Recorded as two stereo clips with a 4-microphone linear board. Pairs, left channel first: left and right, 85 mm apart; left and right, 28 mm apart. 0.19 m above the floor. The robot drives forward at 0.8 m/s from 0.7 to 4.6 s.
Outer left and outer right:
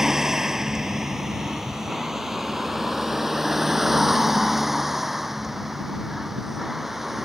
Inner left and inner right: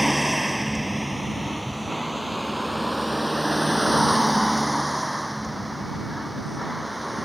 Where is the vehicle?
5° right (ahead or behind).